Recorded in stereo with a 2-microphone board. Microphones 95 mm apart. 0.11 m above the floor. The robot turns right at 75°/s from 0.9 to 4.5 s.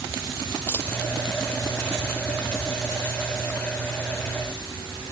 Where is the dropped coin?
20° left (ahead or behind); by 0.9 s 25° left (ahead or behind).